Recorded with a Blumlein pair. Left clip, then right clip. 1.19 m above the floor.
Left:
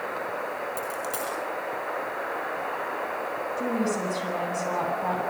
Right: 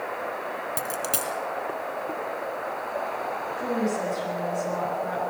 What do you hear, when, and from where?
0.8 s a dropped coin: 25° right, 5 m
3.6 s a woman speaking: 65° left, 8.5 m